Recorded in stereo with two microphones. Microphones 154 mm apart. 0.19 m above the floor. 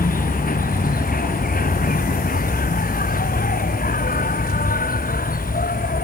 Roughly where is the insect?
Left.